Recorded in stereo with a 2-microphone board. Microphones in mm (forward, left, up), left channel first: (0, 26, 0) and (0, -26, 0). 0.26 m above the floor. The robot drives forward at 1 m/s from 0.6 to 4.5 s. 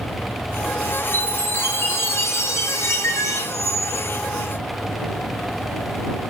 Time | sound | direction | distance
1.1 | a chime | 45° left (ahead or behind) | 5.5 m
3.5 | a squeak | 60° right (ahead or behind) | 4.5 m